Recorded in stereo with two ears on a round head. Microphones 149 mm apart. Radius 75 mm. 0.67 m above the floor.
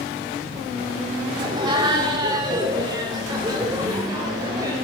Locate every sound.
1.4 s laughter: 25° right (ahead or behind), 1.4 m